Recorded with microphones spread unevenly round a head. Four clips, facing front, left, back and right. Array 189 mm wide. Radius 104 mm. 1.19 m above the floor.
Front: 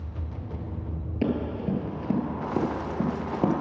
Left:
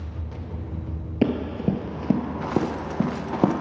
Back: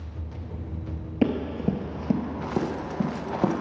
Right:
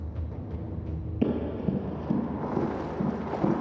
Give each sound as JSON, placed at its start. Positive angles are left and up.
{"t": 1.2, "sound": "running footsteps", "azimuth_deg": 130, "distance_m": 1.4}